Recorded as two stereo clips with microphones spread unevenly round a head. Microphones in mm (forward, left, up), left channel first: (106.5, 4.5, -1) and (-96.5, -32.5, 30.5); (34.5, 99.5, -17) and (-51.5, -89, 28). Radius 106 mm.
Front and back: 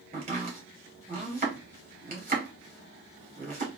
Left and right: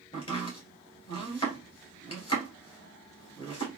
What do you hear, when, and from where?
0.1 s chopping: 135° left, 2.5 m